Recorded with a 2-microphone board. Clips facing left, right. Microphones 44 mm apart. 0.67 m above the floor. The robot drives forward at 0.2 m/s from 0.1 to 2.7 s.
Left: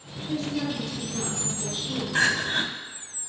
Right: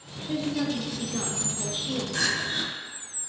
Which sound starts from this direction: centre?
A woman speaking, at 0.3 s.